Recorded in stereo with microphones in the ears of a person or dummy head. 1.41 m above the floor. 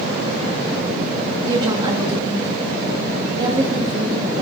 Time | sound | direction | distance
1.5 | a woman speaking | 25° right (ahead or behind) | 2.5 m